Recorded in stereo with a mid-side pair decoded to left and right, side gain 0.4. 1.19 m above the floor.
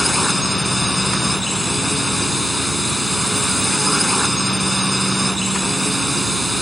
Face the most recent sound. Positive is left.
turn(degrees=0)